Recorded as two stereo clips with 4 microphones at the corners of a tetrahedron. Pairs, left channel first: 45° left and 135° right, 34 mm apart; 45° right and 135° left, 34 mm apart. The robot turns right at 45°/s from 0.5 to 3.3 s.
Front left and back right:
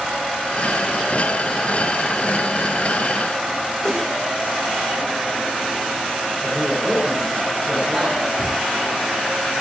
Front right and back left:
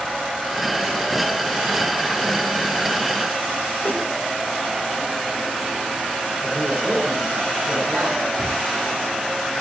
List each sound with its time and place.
3.8 s a whoosh: 25° right, 2.5 m
6.4 s a man speaking: 135° left, 8 m
8.4 s a cupboard door: 60° left, 9.5 m